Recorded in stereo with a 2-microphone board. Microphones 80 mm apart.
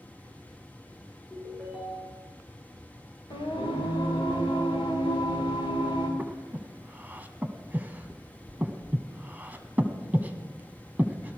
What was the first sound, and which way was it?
A ringtone, 5° right (ahead or behind).